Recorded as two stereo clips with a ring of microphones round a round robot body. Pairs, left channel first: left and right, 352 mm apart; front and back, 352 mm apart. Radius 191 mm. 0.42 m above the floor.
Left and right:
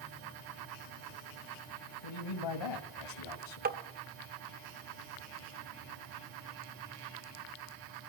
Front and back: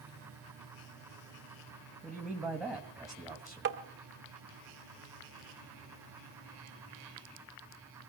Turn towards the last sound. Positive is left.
turn(degrees=-140)